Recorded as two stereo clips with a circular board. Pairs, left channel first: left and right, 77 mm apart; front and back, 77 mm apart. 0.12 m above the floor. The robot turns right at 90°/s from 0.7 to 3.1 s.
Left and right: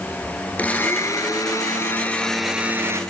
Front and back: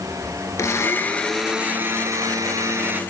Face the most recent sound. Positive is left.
turn(degrees=-115)